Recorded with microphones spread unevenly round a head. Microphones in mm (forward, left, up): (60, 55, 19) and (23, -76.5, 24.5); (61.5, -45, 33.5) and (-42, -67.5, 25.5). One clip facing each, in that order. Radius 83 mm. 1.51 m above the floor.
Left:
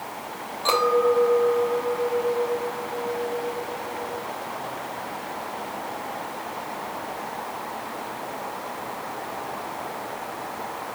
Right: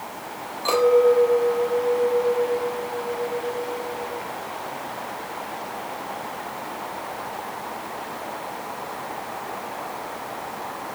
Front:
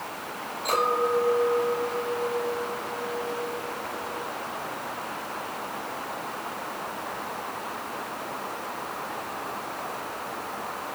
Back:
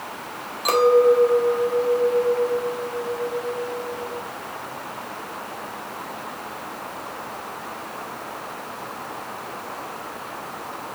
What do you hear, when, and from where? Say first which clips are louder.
0.7 s a clink: right 4 dB, back 10 dB; 175° left, 4 m